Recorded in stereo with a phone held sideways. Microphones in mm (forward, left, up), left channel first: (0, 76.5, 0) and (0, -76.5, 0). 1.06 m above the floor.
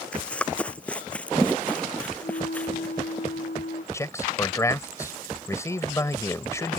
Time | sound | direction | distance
0.1 | running footsteps | 10° left (ahead or behind) | ?
2.2 | a flute | 90° left | ?
3.9 | a man speaking | 20° left (ahead or behind) | ?